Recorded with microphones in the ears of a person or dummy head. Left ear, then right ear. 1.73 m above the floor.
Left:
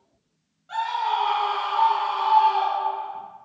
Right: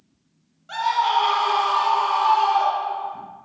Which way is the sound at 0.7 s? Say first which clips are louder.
Right 4 dB; 15° right (ahead or behind).